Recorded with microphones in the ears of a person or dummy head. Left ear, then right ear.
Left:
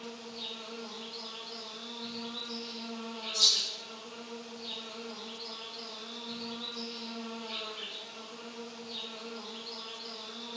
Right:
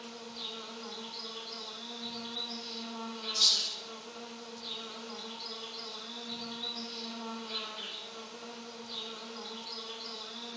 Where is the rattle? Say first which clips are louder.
Left 1 dB; 5° right (ahead or behind), 1.2 m.